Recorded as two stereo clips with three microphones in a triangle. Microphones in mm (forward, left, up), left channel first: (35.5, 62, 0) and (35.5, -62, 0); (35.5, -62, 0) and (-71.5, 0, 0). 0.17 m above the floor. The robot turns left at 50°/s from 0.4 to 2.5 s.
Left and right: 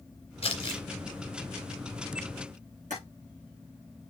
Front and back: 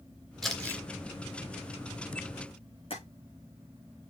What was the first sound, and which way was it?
Crumpling, 60° left.